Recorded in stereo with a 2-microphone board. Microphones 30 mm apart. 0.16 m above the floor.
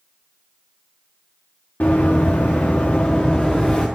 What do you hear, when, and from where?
1.8 s running footsteps: 80° left, 1.2 m; by 3.9 s 10° left (ahead or behind), 1.1 m